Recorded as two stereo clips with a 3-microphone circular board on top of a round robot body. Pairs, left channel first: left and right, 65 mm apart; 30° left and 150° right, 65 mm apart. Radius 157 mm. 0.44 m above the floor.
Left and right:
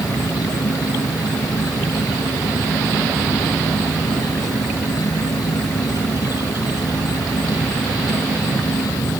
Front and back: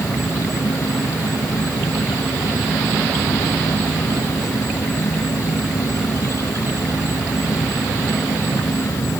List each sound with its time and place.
0.0 s an insect: 70° left